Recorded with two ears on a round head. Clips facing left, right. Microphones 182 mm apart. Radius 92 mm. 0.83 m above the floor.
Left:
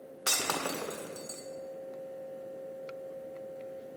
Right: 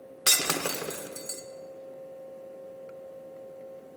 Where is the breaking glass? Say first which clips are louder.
Right 3 dB; 25° right (ahead or behind), 0.5 m.